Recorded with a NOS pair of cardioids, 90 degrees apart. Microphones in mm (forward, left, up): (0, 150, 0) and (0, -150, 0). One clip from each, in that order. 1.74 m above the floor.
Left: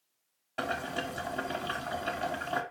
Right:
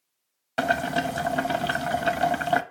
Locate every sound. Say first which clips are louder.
0.6 s boiling: right 9 dB; 60° right, 0.7 m